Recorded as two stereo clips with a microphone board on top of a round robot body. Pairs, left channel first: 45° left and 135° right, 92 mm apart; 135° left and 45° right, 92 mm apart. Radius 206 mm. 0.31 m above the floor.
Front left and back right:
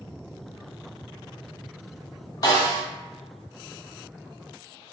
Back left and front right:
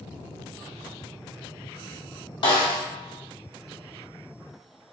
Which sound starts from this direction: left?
A snare drum, at 2.4 s.